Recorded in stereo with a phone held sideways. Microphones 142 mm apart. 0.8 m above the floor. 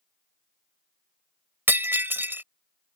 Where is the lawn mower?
I don't hear a lawn mower.